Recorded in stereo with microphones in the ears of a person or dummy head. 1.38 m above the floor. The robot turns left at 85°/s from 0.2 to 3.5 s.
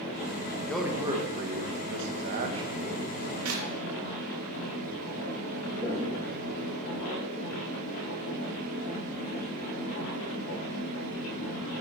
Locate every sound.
0.6 s a man speaking: 15° left, 1.0 m; by 3.4 s 145° left, 1.0 m
3.5 s a clap: 80° right, 1.3 m; by 3.6 s 85° right, 1.3 m
5.8 s footsteps: 10° right (ahead or behind), 4 m; by 7.4 s 25° right (ahead or behind), 4 m